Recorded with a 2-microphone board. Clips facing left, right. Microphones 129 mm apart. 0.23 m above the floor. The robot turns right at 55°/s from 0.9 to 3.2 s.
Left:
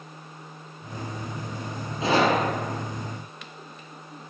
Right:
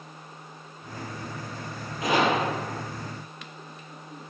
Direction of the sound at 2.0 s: 25° left.